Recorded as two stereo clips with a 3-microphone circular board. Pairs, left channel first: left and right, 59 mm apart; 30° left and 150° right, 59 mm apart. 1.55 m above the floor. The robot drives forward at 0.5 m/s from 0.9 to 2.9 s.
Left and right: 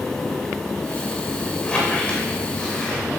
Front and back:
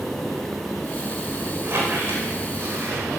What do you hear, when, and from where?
1.6 s a squeak: 165° left, 5 m